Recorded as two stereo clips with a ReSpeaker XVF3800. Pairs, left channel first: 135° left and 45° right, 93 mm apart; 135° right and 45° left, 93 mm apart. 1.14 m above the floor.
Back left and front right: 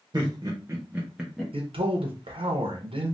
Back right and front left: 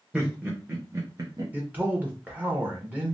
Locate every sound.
0.1 s laughter: 35° right, 0.8 m; by 1.4 s 50° left, 0.7 m
1.5 s a man speaking: 30° right, 0.7 m